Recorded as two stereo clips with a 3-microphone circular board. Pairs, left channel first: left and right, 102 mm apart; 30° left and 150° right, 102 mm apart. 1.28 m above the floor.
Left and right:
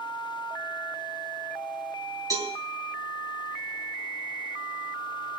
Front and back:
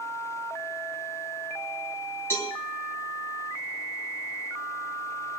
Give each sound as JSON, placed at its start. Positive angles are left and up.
{"t": 2.3, "sound": "a cowbell", "azimuth_deg": -35, "distance_m": 3.5}